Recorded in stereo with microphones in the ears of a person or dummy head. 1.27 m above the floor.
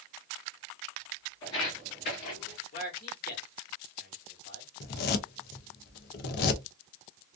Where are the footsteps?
25° left (ahead or behind), 1.4 m; by 2.6 s 35° left (ahead or behind), 1.6 m.